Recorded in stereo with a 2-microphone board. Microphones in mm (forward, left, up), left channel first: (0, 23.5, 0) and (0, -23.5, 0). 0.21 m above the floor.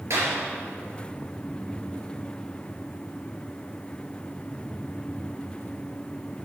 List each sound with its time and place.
0.1 s a clap: 75° right (ahead or behind), 3 m